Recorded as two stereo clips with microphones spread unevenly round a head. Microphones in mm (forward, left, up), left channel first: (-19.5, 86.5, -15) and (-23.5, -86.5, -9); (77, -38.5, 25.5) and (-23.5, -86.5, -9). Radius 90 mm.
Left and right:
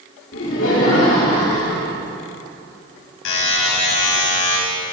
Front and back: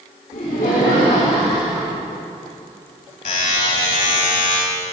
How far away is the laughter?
About 4 m.